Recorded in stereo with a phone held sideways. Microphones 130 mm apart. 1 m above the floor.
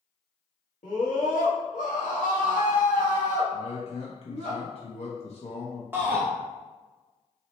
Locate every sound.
0.8 s a scream: 80° left, 1.0 m
3.5 s a man speaking: 55° left (ahead or behind), 0.7 m
5.9 s a shout: 15° right (ahead or behind), 0.6 m